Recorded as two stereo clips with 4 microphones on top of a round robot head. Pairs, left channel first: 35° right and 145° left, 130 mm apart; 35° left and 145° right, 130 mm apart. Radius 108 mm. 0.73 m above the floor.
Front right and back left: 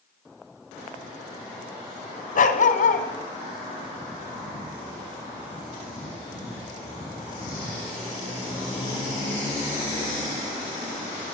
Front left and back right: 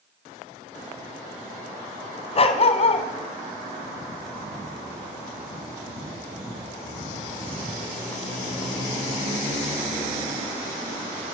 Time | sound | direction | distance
2.4 | a dog barking | 10° right | 2.5 m